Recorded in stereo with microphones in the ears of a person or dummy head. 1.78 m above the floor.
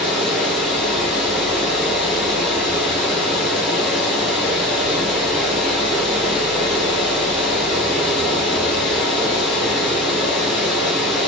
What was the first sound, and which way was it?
Running water, 5° right (ahead or behind).